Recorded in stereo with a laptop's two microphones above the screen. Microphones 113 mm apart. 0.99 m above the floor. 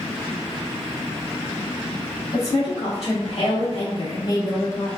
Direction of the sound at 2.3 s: 60° left (ahead or behind).